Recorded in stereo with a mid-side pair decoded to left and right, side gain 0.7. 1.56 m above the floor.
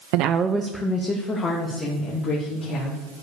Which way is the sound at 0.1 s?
65° right.